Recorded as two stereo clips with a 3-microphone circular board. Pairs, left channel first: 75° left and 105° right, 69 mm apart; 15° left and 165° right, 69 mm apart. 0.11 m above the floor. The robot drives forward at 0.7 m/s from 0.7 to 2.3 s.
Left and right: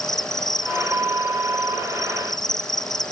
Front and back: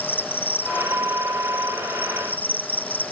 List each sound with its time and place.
0.0 s an insect: 75° left; by 3.1 s 80° left